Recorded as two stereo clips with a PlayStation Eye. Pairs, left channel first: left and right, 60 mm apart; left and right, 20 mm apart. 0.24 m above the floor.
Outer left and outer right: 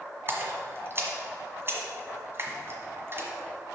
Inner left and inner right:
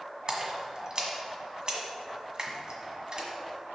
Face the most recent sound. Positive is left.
turn(degrees=-45)  # may be behind; listen again after turning